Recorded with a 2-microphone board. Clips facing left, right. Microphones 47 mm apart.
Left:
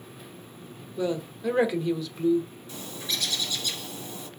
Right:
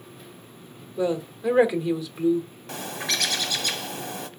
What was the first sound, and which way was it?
A woman speaking, 10° right (ahead or behind).